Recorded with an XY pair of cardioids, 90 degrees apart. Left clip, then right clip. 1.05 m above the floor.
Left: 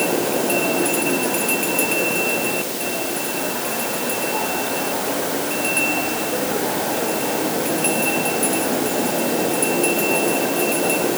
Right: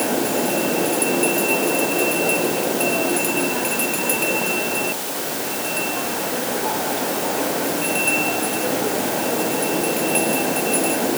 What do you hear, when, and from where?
Only background noise.